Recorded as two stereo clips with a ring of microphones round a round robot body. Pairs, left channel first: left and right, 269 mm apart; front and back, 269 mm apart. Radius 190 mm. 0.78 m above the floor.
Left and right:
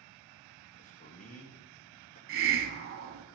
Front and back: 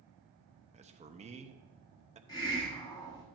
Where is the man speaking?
135° left, 0.9 m.